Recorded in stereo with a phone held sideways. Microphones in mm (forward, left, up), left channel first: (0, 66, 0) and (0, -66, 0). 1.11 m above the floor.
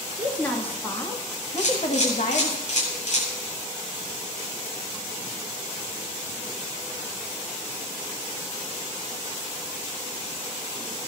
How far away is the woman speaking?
About 2.5 m.